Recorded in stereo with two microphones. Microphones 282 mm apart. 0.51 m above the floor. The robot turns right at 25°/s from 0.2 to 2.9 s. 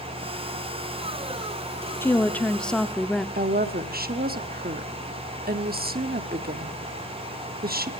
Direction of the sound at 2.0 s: 10° left (ahead or behind).